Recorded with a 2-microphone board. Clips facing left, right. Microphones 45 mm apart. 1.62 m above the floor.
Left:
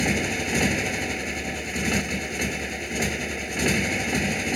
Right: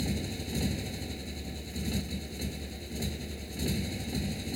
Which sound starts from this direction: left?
A motorcycle, at 0.0 s.